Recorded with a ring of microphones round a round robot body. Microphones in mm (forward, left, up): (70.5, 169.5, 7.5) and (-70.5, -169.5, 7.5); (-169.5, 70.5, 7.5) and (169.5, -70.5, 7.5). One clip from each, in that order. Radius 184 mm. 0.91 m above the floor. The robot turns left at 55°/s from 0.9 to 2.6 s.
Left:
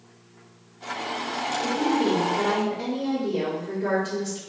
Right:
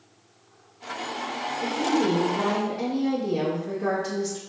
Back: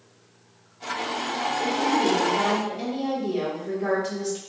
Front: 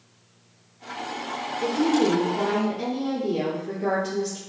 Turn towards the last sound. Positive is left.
turn(degrees=-130)